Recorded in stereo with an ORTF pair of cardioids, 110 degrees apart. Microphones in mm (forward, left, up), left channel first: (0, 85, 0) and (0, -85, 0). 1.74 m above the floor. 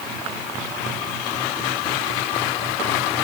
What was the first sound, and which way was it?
Only background noise.